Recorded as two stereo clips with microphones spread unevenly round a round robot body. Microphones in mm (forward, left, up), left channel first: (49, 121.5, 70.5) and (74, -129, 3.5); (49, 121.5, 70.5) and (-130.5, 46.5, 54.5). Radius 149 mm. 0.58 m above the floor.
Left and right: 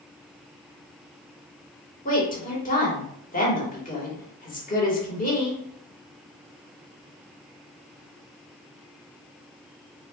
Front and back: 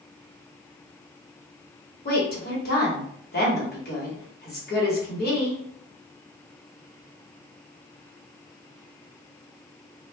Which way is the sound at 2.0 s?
35° left.